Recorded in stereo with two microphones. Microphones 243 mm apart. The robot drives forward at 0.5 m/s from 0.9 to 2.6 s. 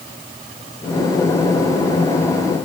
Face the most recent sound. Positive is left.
No sound to turn to.